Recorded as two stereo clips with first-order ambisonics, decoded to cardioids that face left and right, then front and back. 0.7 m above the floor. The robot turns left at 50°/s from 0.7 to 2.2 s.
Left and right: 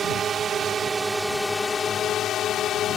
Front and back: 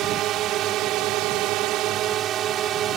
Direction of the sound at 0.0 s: 150° right.